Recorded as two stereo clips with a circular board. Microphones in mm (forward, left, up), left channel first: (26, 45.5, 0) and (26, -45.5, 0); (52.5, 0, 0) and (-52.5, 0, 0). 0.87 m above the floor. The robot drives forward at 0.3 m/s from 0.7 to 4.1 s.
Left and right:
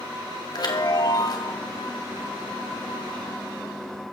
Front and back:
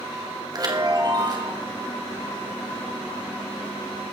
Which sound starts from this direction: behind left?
A chime, at 0.5 s.